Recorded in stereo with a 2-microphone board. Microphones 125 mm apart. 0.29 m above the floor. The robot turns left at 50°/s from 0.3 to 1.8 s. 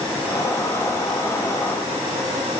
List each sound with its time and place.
Only background noise.